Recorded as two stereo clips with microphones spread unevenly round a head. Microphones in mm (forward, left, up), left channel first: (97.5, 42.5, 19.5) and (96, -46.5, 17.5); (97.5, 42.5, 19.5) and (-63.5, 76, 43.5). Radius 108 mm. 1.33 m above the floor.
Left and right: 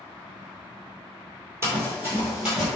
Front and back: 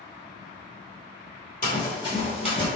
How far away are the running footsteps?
About 1.7 m.